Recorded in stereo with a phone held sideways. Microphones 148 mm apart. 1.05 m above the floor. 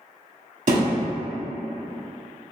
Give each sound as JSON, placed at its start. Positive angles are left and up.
{"t": 0.7, "sound": "a thud", "side_deg": -60, "distance_m": 1.0}